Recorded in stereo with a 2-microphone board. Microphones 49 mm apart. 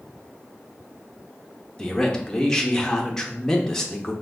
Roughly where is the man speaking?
Centre.